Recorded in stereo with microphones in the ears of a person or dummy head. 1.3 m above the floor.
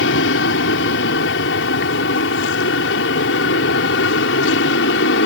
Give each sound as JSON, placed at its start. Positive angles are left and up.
{"t": 0.0, "sound": "an aircraft", "side_deg": 65}